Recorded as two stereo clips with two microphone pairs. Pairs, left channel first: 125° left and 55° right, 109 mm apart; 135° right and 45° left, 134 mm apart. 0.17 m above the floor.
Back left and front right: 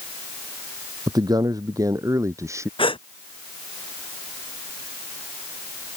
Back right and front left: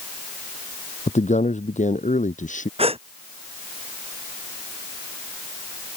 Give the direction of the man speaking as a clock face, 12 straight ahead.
4 o'clock.